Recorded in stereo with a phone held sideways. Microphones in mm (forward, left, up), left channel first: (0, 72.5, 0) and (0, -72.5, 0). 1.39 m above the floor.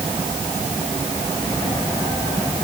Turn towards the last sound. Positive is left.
No sound to turn to.